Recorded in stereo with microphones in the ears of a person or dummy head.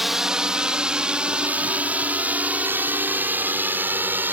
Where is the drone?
Centre (ahead or behind); by 4.3 s 10° right (ahead or behind).